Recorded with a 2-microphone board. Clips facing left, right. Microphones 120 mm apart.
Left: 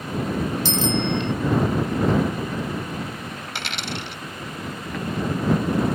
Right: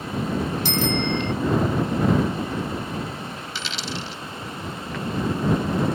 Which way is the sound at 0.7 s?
75° right (ahead or behind).